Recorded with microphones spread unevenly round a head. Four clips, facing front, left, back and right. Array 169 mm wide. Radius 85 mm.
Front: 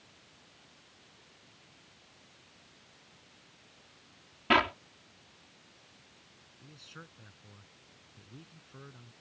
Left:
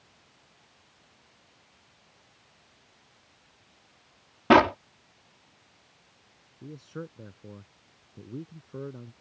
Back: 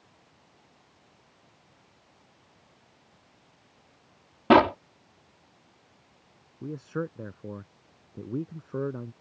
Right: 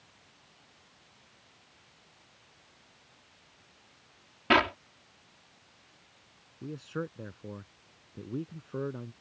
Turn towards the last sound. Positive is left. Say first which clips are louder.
# right 3 dB, back 20 dB
turn(degrees=-170)